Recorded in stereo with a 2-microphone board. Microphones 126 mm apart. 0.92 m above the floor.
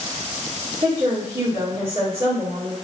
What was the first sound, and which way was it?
A woman speaking, 60° right (ahead or behind).